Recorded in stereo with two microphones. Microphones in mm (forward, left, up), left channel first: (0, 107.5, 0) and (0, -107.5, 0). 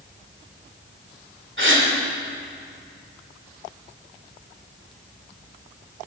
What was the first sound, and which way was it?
A gasp, 65° right (ahead or behind).